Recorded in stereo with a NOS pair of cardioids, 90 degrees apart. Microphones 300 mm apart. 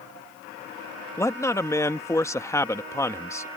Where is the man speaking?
10° left.